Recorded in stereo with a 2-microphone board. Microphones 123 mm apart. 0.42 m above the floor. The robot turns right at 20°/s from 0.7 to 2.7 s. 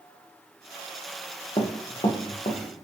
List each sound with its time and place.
1.6 s running footsteps: 35° left (ahead or behind), 1.3 m; by 2.8 s 70° left (ahead or behind), 2 m